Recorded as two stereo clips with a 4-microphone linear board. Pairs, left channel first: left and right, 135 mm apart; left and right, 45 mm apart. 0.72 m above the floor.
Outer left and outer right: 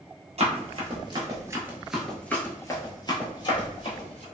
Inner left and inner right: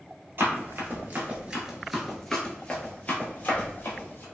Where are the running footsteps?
50° right (ahead or behind), 1.0 m; by 4.2 s 45° left (ahead or behind), 1.5 m.